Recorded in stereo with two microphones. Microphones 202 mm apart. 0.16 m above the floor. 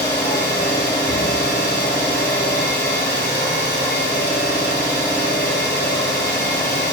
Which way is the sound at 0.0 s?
65° left (ahead or behind).